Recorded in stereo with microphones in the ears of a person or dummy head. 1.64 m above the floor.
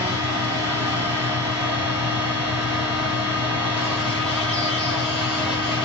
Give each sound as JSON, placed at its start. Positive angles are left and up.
{"t": 0.0, "sound": "a fan", "side_deg": -5, "distance_m": 1.6}